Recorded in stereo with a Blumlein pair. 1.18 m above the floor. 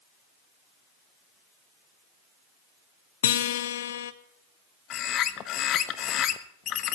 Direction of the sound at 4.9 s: 30° left.